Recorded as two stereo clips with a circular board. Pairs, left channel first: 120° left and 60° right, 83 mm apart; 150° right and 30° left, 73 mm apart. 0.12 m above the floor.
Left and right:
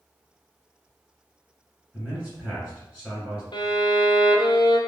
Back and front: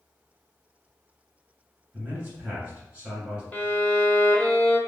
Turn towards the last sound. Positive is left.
turn(degrees=145)